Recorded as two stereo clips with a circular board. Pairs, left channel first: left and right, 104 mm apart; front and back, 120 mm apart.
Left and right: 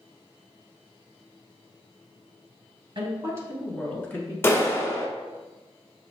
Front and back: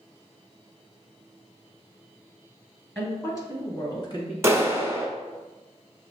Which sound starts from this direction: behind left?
A clap, at 4.4 s.